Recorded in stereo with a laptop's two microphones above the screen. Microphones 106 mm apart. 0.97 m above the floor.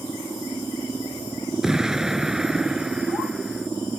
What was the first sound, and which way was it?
An explosion, 5° right (ahead or behind).